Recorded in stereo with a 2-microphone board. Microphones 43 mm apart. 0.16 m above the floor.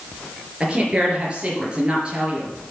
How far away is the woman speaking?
About 3.5 m.